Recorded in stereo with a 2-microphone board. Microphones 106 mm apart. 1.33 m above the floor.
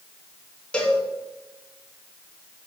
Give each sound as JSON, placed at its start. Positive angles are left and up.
{"t": 0.7, "sound": "a cowbell", "side_deg": 10, "distance_m": 1.4}